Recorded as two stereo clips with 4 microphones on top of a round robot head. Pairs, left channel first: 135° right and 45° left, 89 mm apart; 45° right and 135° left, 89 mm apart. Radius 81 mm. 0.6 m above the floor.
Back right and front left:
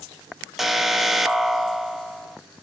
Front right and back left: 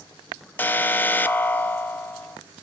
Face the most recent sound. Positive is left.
turn(degrees=-40)